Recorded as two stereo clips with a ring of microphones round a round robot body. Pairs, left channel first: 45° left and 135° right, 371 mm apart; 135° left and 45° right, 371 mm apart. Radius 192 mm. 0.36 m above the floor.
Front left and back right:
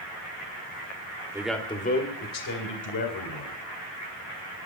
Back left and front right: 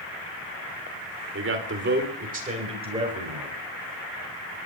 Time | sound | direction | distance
1.3 | a man speaking | 60° right | 1.6 m